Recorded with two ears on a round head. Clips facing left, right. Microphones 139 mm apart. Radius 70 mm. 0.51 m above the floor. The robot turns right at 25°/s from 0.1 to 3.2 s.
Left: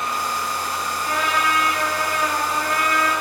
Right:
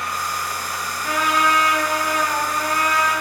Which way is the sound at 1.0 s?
70° right.